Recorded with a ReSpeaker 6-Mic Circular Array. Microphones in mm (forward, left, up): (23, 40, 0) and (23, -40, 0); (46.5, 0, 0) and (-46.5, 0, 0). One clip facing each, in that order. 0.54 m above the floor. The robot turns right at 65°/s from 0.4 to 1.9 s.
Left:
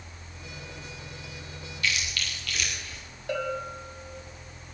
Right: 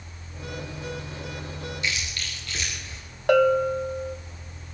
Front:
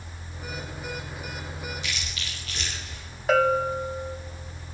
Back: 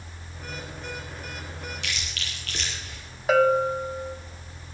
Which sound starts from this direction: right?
A bell, at 3.3 s.